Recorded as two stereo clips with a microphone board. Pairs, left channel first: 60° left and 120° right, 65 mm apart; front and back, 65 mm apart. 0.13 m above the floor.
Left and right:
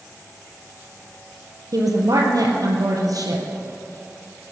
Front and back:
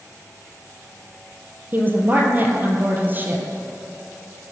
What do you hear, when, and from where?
1.7 s a woman speaking: 125° right, 3 m